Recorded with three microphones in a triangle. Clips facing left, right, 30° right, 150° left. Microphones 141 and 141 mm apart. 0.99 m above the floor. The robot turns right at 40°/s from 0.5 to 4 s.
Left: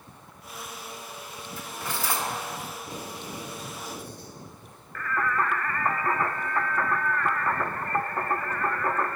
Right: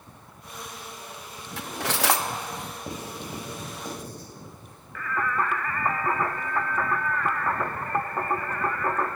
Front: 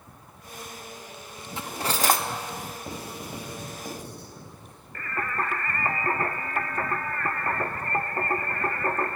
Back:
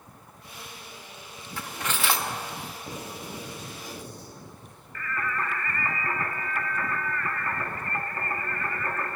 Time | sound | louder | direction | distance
1.6 | cutlery clinking | right 6 dB, front 4 dB | 100° right | 0.7 m
2.9 | writing | right 2 dB, front 1 dB | 90° right | 3 m
5.0 | singing | even, front 1 dB | 5° right | 0.5 m